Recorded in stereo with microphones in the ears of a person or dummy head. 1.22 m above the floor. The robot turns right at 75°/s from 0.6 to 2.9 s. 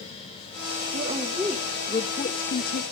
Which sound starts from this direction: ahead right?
A woman speaking, at 0.9 s.